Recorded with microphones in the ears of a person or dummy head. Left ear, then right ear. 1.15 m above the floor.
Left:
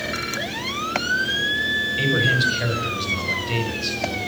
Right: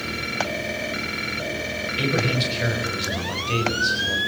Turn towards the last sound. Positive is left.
turn(degrees=-10)  # may be behind; listen again after turning